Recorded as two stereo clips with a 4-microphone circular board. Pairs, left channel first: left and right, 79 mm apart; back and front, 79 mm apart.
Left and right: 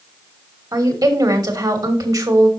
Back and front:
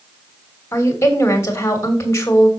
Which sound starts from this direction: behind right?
A woman speaking, at 0.7 s.